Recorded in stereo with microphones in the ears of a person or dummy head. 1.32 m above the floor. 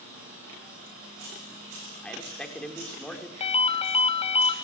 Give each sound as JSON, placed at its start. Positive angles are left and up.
{"t": 2.0, "sound": "a man speaking", "side_deg": 5, "distance_m": 5.0}
{"t": 3.4, "sound": "a ringtone", "side_deg": 35, "distance_m": 2.5}